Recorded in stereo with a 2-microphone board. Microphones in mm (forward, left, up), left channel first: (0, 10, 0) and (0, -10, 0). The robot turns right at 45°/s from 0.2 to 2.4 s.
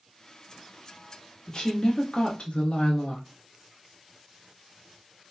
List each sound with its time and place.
1.5 s a woman speaking: 45° left, 0.9 m; by 3.2 s 85° left, 0.9 m